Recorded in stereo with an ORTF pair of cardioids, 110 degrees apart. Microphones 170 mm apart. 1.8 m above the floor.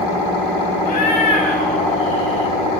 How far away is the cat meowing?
About 6 m.